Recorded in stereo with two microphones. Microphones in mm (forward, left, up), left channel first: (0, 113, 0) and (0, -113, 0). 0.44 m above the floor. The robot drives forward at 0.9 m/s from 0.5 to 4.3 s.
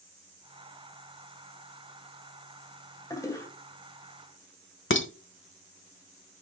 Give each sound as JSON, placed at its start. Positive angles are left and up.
{"t": 3.1, "sound": "a toilet flushing", "side_deg": 15, "distance_m": 2.0}
{"t": 4.9, "sound": "dishes clattering", "side_deg": 60, "distance_m": 1.0}